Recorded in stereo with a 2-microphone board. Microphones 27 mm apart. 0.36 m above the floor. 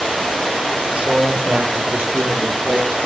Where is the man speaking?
40° right (ahead or behind), 8.5 m; by 3.0 s 55° right (ahead or behind), 9.5 m.